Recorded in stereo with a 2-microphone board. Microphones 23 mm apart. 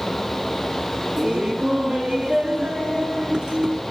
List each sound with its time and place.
1.2 s laughter: 25° right (ahead or behind), 1.0 m